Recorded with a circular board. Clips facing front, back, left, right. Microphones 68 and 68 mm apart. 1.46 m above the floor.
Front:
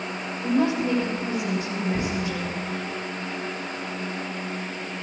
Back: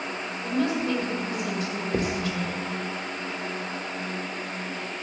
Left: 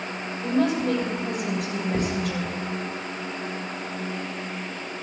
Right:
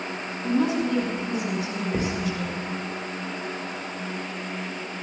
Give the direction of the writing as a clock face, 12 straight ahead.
6 o'clock.